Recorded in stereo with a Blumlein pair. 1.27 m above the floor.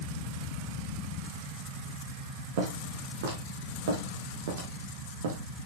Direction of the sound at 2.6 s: 55° right.